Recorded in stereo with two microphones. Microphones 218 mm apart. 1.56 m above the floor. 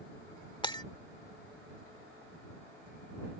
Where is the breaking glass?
20° left (ahead or behind).